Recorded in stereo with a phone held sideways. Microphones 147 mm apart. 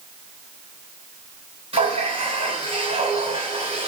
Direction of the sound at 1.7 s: 45° right (ahead or behind).